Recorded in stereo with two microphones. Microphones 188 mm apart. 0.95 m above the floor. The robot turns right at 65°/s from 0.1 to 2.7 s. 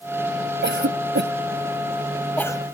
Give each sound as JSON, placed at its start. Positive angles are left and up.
{"t": 0.6, "sound": "a cough", "side_deg": -70}